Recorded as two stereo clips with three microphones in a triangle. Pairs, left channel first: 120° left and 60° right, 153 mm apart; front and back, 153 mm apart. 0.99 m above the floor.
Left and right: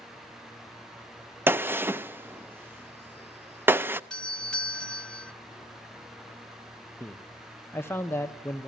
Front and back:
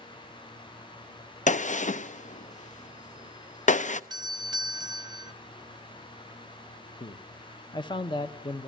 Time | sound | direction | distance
1.5 | a gunshot | 15° left | 0.5 m
4.1 | a doorbell | 160° right | 0.8 m
7.0 | a man speaking | 50° left | 0.9 m